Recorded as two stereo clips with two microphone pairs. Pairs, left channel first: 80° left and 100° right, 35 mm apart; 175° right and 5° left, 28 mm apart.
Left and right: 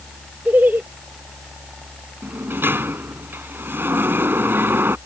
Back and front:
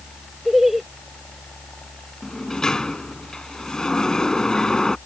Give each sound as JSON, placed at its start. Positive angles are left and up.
{"t": 0.5, "sound": "laughter", "azimuth_deg": -75}
{"t": 2.2, "sound": "a sliding door", "azimuth_deg": -110}